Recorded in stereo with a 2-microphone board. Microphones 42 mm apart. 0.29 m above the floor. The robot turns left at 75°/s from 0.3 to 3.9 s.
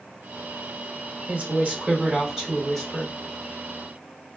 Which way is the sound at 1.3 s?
85° right.